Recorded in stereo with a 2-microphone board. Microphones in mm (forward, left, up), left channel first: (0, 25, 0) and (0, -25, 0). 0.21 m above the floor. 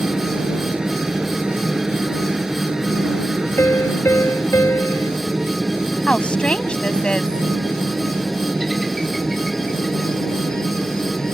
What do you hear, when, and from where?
0.0 s a helicopter: 20° right (ahead or behind); by 11.3 s 10° left (ahead or behind)
3.6 s a piano: 65° left (ahead or behind)
6.1 s a woman speaking: 25° left (ahead or behind)